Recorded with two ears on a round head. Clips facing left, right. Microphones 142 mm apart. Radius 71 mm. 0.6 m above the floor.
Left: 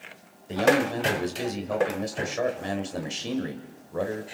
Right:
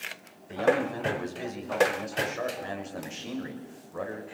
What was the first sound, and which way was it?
A man speaking, 40° left (ahead or behind).